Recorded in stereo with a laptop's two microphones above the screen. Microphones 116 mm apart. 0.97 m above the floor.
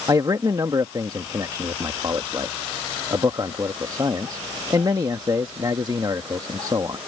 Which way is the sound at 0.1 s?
35° right (ahead or behind).